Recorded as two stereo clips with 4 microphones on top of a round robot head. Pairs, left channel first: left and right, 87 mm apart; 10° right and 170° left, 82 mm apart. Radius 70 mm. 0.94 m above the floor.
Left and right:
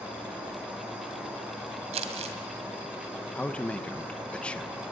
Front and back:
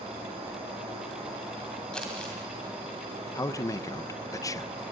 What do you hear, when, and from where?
0.0 s an insect: 165° right, 6.5 m
1.9 s crumpling: 90° right, 2 m
3.4 s a man speaking: 15° left, 1.0 m